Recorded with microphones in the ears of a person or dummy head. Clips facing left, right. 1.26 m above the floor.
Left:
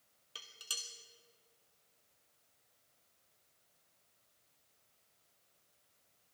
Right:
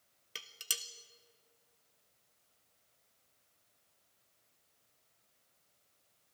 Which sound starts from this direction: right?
Dishes clattering, at 0.3 s.